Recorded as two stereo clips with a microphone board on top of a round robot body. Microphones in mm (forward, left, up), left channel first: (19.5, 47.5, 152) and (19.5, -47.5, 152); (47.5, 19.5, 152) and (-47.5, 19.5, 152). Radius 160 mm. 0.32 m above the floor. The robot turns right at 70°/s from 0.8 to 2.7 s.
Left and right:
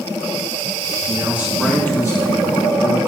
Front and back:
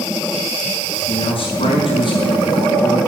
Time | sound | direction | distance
1.1 | a man speaking | 35° right | 5 m